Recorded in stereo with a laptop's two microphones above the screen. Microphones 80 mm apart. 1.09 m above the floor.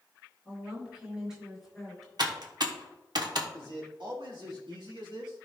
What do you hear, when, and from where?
0.5 s a woman speaking: 15° right (ahead or behind), 4 m; by 2.1 s 5° left (ahead or behind), 3.5 m
2.2 s typing on a keyboard: 60° right (ahead or behind), 1.1 m
3.5 s a man speaking: 80° right, 2.5 m